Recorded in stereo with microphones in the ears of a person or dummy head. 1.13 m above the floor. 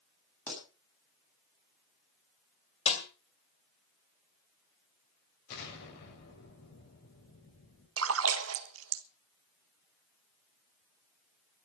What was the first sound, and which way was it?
A pop, 10° left (ahead or behind).